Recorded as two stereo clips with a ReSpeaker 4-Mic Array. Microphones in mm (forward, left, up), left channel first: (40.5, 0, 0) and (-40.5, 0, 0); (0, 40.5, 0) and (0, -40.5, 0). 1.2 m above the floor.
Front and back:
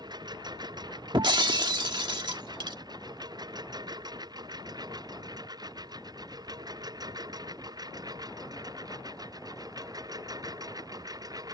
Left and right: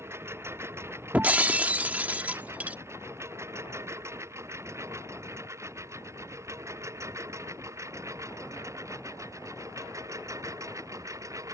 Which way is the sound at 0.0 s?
150° right.